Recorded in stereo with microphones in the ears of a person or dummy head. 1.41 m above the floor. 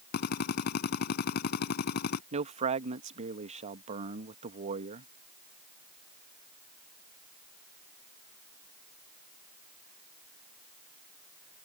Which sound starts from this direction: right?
A man speaking, at 2.3 s.